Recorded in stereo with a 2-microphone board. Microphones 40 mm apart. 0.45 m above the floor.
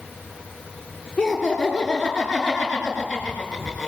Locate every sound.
1.2 s laughter: 15° left (ahead or behind), 7.5 m; by 3.9 s 5° left (ahead or behind), 7 m